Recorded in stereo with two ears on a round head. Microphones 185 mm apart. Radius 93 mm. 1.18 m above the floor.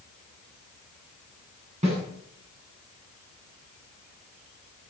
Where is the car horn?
I don't hear a car horn.